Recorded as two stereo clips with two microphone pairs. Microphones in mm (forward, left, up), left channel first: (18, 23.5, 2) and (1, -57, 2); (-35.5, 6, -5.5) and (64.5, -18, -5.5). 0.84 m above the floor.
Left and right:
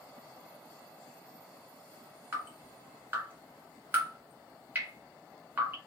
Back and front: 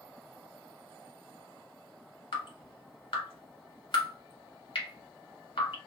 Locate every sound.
2.3 s dripping: 165° right, 1.8 m